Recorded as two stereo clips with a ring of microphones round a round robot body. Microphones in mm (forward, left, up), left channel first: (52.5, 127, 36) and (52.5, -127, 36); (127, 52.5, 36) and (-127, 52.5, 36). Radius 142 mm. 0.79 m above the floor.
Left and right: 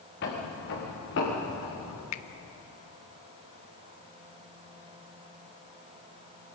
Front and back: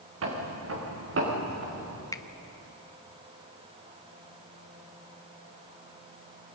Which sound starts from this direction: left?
A finger snap, at 2.1 s.